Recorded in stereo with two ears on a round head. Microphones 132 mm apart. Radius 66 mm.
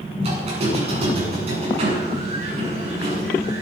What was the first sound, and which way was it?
A squeak, 45° right (ahead or behind).